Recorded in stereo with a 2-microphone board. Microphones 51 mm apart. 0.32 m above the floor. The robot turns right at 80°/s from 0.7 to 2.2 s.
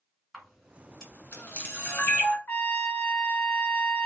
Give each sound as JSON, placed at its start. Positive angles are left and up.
{"t": 0.3, "sound": "a camera shutter", "side_deg": 5, "distance_m": 1.8}
{"t": 2.5, "sound": "a trumpet", "side_deg": 35, "distance_m": 0.7}